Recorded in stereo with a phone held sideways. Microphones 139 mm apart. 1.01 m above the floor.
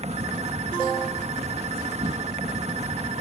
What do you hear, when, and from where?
0.0 s an insect: 50° right (ahead or behind)